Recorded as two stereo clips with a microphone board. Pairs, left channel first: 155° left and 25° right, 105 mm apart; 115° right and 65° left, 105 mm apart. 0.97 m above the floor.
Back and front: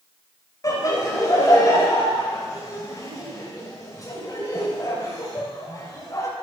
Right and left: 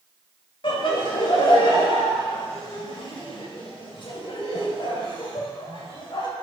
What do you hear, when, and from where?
0.6 s laughter: 150° right, 4 m